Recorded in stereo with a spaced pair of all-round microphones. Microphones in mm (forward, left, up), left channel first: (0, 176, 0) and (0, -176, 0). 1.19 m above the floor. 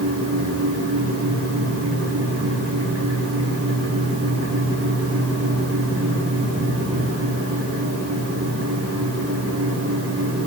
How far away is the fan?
About 2 m.